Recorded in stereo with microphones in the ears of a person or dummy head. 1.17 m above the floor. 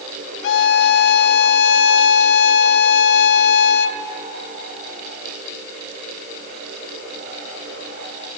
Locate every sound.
0.4 s a violin: 70° left (ahead or behind), 1.4 m